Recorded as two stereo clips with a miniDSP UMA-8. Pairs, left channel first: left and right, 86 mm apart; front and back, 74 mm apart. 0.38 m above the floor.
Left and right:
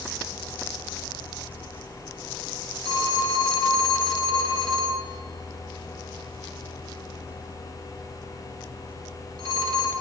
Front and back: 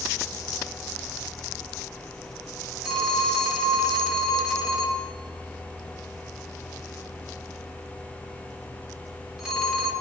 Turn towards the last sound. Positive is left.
turn(degrees=-100)